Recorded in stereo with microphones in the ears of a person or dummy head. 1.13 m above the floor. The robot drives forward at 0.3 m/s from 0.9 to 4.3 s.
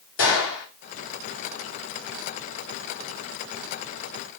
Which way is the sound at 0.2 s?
75° left (ahead or behind).